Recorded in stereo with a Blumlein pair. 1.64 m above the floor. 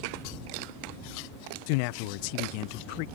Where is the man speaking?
45° left.